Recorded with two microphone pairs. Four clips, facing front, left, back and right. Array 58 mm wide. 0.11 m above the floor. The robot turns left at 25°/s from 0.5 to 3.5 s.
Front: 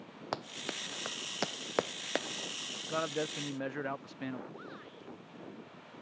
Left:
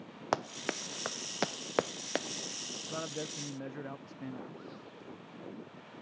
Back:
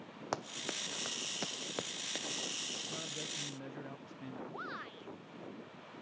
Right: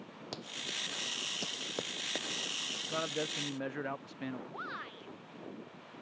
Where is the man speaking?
10° right; by 4.4 s 25° right.